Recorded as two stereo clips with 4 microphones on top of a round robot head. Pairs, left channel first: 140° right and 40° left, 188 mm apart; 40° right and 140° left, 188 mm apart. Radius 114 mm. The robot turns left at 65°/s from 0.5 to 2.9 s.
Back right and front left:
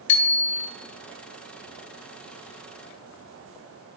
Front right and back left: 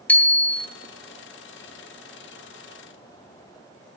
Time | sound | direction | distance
0.1 | a bicycle bell | 125° right | 2 m